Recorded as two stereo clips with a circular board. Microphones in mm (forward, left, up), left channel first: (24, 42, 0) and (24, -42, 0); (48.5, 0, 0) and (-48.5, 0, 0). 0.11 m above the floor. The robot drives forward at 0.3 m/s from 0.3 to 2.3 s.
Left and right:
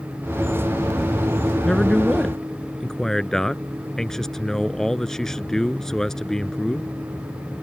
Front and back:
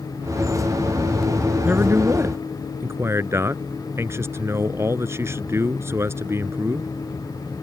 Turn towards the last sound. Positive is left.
turn(degrees=170)